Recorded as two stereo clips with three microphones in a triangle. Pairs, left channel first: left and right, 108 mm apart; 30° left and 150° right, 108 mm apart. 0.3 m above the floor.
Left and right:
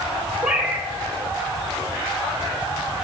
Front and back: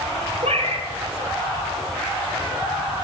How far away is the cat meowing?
About 1.8 m.